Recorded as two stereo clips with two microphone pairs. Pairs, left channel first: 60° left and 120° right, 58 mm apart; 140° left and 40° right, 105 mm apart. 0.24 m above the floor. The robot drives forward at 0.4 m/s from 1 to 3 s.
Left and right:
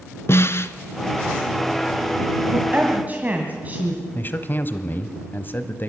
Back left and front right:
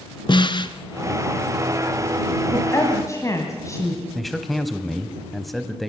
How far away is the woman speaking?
About 1.7 m.